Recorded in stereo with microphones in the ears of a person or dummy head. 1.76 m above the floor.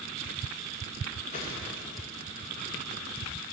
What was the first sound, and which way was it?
A whoosh, 35° left (ahead or behind).